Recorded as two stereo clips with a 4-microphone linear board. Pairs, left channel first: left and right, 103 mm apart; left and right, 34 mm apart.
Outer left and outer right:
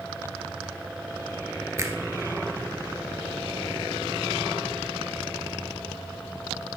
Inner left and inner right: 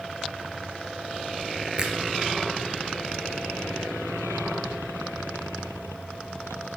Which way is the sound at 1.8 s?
30° right (ahead or behind).